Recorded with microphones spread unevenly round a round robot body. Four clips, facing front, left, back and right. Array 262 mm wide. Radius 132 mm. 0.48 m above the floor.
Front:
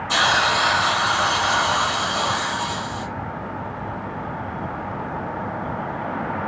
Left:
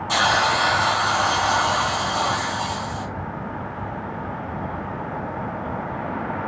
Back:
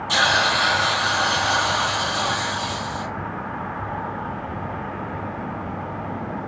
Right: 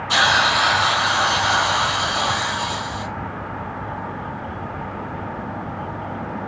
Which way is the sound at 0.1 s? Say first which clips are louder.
Right 1 dB, front 1 dB; 95° left.